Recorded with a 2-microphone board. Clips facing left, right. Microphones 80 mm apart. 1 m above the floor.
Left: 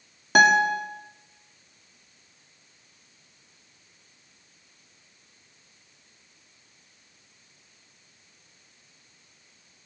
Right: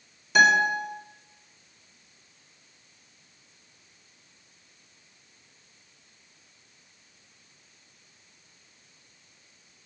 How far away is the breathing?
I don't hear breathing.